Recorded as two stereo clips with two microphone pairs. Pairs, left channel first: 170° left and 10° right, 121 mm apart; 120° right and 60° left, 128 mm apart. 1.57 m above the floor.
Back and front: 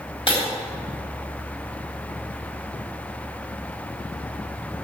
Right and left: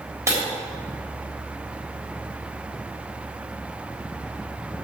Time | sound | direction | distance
0.3 | breaking glass | 125° left | 3.5 m